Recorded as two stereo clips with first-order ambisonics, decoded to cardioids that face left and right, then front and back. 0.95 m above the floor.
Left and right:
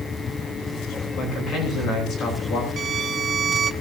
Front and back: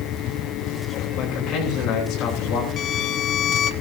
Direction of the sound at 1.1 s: 40° left.